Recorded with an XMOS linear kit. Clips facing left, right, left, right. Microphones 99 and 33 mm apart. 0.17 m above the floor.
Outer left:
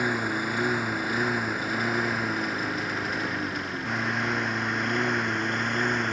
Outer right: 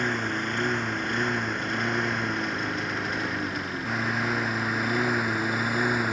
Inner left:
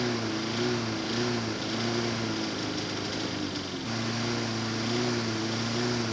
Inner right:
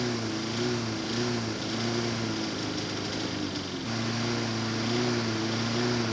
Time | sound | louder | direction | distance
0.0 | a lawn mower | outer left 1 dB, inner left 1 dB | 5° left (ahead or behind) | ?